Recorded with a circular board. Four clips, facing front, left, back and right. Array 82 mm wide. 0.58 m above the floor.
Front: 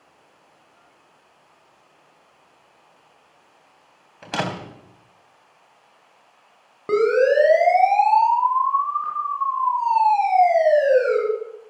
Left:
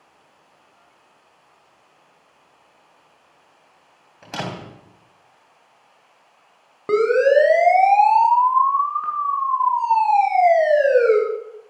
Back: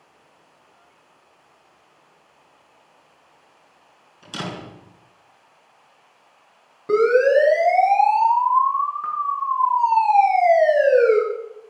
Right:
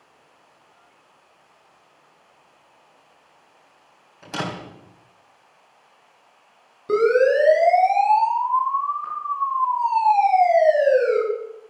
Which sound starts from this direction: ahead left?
A siren, at 6.9 s.